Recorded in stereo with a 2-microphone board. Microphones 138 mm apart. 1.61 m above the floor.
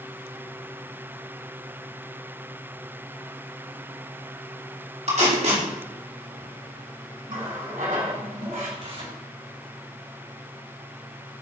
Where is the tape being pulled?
55° right (ahead or behind), 2.5 m.